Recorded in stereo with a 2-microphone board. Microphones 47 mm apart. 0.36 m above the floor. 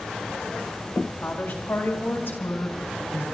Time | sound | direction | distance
1.2 | a woman speaking | 30° left (ahead or behind) | 2.5 m